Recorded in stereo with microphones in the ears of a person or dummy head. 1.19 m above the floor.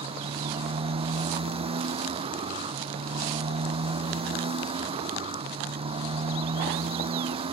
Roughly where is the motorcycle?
Right.